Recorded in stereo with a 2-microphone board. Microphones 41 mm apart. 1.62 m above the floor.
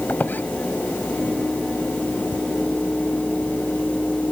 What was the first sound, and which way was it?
A squeak, 55° left (ahead or behind).